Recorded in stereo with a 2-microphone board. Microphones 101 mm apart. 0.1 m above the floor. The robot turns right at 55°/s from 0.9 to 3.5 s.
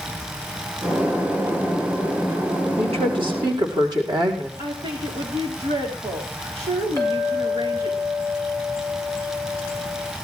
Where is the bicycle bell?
I don't hear a bicycle bell.